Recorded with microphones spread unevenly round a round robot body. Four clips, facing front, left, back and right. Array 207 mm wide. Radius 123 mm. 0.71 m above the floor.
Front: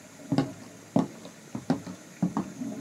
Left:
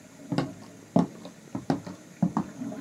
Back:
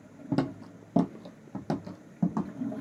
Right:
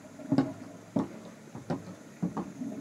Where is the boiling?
I don't hear boiling.